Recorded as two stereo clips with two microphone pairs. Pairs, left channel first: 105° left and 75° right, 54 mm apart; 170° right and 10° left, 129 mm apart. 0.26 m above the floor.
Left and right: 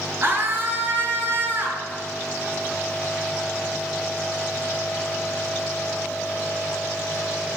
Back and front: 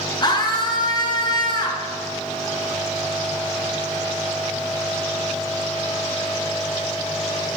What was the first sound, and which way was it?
A scream, 120° right.